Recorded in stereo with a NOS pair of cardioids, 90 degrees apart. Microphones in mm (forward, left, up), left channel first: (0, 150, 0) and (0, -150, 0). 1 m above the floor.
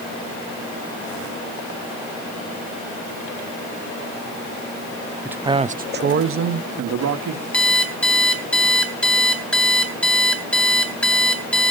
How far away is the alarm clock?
About 2.5 m.